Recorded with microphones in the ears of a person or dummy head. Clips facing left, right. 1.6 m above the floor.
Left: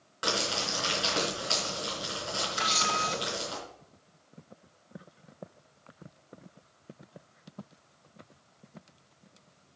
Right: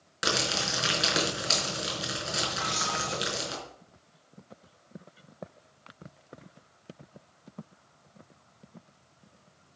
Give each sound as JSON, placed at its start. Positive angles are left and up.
{"t": 0.2, "sound": "crumpling", "side_deg": -20, "distance_m": 4.0}
{"t": 2.6, "sound": "a camera shutter", "side_deg": 45, "distance_m": 1.7}